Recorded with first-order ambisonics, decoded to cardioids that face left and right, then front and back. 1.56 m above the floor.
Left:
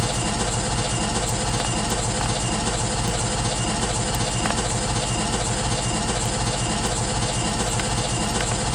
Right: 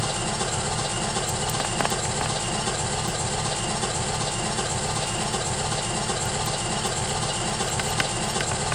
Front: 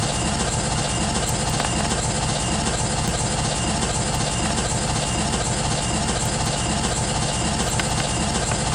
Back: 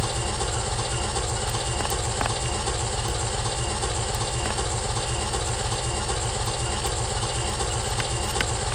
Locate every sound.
0.0 s an engine running: 20° left, 1.9 m